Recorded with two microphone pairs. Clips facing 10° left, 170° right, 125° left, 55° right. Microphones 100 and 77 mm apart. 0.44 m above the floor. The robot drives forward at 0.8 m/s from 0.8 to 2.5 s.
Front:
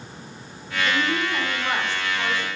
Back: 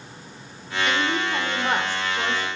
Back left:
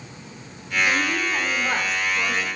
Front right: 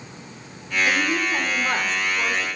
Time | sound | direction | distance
0.8 | a woman speaking | 95° right | 0.9 m